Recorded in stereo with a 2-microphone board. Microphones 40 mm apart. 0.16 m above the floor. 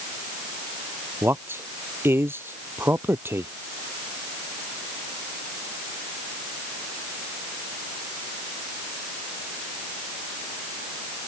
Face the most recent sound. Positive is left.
turn(degrees=-70)  # may be behind; listen again after turning